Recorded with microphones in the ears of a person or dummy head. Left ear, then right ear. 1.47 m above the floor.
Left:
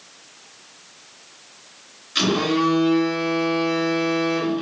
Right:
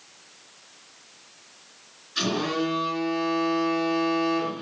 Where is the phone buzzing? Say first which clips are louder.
Left 6 dB; 45° left (ahead or behind), 1.4 m.